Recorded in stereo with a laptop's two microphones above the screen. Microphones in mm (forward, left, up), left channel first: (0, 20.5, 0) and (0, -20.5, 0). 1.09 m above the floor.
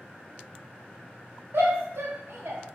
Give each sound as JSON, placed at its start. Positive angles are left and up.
{"t": 1.5, "sound": "a shout", "side_deg": -85, "distance_m": 1.2}